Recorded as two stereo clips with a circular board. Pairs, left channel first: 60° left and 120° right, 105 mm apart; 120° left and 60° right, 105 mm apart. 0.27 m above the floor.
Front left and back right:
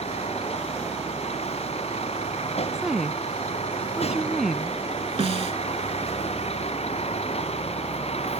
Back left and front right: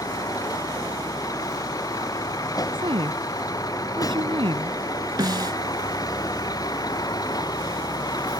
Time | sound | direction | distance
0.0 | a vehicle | 65° left | ?
2.7 | a woman speaking | 35° right | ?
5.2 | a snare drum | 110° right | ?